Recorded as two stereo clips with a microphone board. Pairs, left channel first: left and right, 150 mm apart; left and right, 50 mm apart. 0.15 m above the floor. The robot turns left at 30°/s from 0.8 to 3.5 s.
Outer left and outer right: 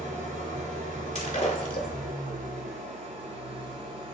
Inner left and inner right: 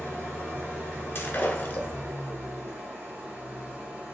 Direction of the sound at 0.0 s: 60° right.